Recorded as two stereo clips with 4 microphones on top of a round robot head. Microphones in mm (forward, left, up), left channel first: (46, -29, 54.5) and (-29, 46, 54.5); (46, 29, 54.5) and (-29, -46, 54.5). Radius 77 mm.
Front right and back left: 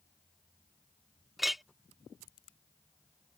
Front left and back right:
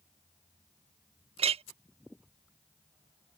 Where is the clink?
135° right.